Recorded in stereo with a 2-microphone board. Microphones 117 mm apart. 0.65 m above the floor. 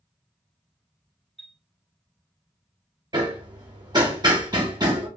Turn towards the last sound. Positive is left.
turn(degrees=-35)  # may be behind; listen again after turning